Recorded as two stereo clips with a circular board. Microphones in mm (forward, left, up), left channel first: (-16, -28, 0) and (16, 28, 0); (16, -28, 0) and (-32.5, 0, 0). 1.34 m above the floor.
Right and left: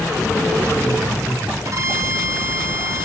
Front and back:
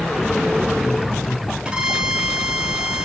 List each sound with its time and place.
1.6 s a violin: 85° left, 1.2 m